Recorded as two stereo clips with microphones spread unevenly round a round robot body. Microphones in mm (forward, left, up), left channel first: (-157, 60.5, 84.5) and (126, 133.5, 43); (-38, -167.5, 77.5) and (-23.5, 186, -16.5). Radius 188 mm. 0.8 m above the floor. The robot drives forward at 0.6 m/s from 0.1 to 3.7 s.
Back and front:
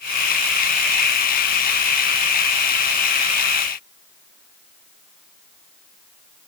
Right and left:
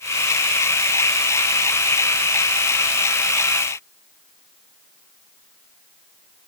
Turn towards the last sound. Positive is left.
No sound to turn to.